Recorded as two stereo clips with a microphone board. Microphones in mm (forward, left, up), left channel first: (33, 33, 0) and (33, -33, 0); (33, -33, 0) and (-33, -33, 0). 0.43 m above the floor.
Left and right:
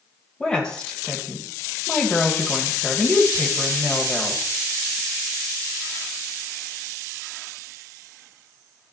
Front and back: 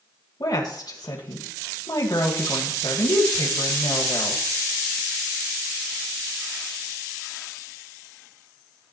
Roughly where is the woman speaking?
Ahead.